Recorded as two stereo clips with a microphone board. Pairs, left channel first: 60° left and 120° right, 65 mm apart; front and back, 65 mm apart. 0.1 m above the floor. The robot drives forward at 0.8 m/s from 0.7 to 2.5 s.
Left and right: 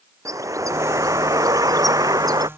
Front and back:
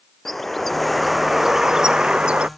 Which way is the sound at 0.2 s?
85° right.